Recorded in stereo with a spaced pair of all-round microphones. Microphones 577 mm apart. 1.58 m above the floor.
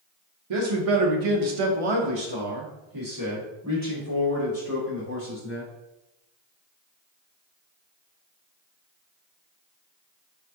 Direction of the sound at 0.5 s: 55° right (ahead or behind).